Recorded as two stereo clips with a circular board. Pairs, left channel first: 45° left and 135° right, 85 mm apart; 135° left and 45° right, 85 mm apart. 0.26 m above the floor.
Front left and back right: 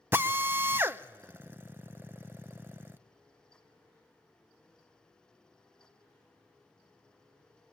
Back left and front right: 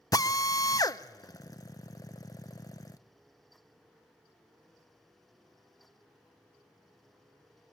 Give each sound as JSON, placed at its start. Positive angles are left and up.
{"t": 0.1, "sound": "a drill", "azimuth_deg": 165, "distance_m": 0.7}